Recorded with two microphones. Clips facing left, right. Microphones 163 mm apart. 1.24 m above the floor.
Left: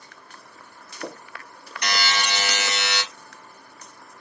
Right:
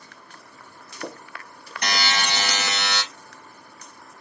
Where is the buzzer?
50° right (ahead or behind), 1.0 m.